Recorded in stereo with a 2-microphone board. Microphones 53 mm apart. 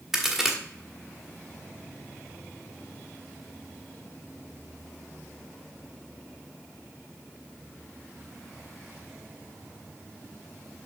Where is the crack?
5° right (ahead or behind), 1.5 m.